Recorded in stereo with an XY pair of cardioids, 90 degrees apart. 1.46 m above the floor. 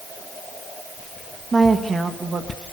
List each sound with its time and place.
1.5 s a woman speaking: 25° right, 2.5 m; by 2.6 s 50° right, 2 m